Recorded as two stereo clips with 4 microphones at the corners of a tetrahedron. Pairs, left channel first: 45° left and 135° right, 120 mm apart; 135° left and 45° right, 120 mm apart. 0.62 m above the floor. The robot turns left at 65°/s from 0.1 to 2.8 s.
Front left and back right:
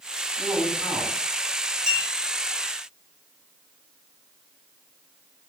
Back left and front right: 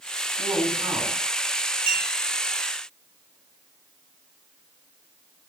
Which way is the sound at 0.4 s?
30° right.